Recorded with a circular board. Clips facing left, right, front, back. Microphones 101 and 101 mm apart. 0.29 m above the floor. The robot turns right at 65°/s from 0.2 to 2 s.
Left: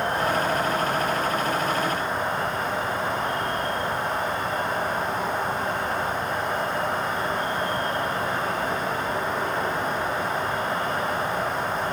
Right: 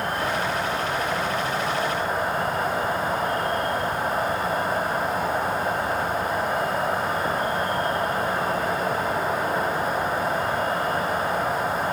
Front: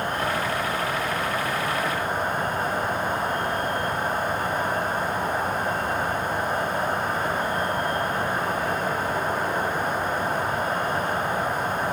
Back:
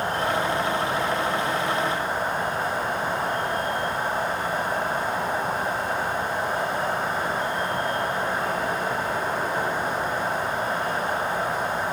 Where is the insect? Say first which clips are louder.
Left 2 dB, back 2 dB; 145° left, 2.5 m; by 11.9 s 100° right, 2.5 m.